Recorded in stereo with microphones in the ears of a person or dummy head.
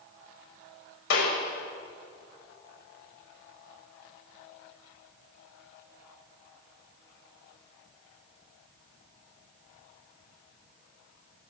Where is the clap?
75° left (ahead or behind), 7 m.